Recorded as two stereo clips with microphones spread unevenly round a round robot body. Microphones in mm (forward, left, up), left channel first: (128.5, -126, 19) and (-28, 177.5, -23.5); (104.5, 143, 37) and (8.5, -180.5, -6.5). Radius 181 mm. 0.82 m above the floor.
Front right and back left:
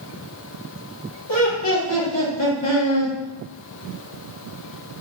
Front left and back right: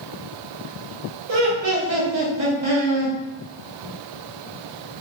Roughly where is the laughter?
Right.